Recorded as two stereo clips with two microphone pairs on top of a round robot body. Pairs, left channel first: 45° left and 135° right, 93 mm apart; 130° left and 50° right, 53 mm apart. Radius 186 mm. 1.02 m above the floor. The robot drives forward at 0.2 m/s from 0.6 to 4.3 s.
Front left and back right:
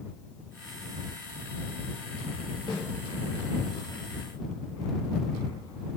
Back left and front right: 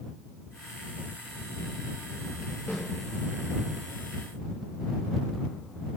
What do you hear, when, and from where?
2.7 s a snare drum: 85° left, 2.5 m